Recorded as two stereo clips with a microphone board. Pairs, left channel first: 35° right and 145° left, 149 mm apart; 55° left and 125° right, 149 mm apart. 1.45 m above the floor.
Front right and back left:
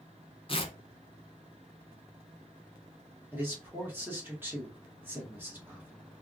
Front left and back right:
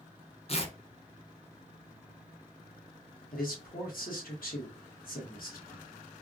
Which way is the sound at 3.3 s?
70° left.